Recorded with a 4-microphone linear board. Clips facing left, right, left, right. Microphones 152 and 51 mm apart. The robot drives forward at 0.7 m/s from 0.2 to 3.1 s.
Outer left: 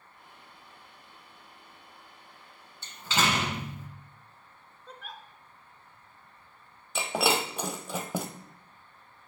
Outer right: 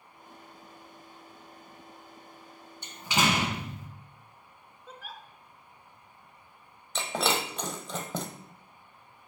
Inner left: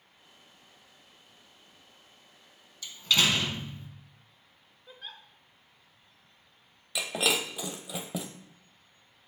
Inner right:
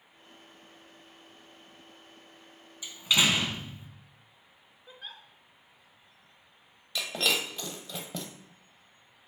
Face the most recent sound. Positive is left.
turn(degrees=10)  # may be behind; listen again after turning